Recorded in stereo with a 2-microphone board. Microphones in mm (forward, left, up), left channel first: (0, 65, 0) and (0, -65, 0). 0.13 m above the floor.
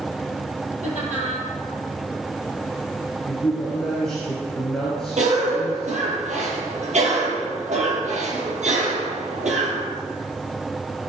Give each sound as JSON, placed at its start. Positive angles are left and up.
{"t": 0.8, "sound": "laughter", "side_deg": -70, "distance_m": 4.5}
{"t": 3.2, "sound": "a man speaking", "side_deg": 5, "distance_m": 2.5}
{"t": 5.2, "sound": "a cough", "side_deg": -65, "distance_m": 3.0}